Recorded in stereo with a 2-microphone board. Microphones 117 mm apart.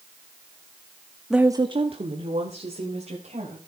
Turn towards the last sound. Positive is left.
turn(degrees=-80)